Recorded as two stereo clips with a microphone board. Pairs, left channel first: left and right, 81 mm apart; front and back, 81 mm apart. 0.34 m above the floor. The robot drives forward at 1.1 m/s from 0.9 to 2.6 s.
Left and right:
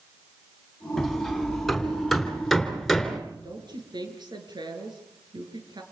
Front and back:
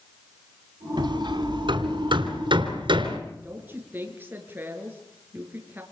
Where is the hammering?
Straight behind, 2.5 m.